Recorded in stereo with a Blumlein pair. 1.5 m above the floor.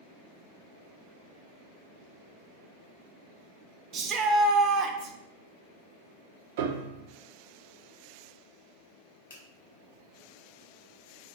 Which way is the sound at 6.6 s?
50° right.